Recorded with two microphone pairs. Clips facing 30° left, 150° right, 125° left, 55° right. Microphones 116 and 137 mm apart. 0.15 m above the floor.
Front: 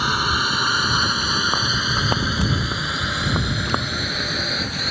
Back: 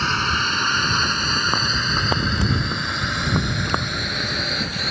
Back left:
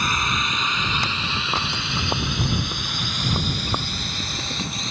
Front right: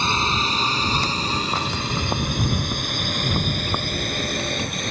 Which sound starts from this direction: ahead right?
A drone, at 0.0 s.